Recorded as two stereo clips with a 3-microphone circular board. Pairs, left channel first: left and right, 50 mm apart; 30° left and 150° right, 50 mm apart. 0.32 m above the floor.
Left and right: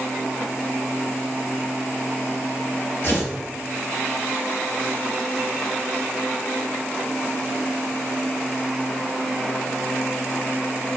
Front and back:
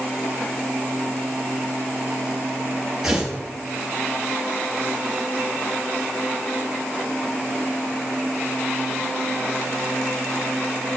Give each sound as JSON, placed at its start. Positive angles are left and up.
{"t": 3.0, "sound": "tearing paper", "azimuth_deg": 130, "distance_m": 1.9}